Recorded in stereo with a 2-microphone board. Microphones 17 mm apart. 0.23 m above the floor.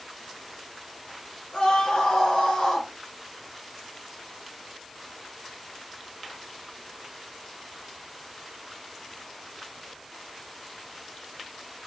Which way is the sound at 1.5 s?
75° left (ahead or behind).